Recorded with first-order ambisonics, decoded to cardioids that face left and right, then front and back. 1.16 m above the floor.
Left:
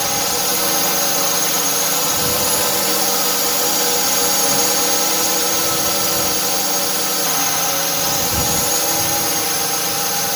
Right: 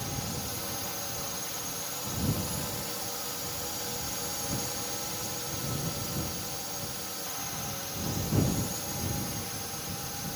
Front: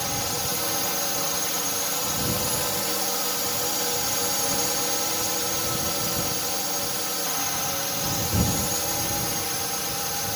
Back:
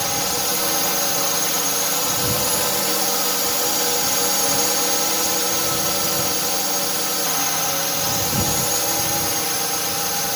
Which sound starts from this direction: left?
A drone, at 0.0 s.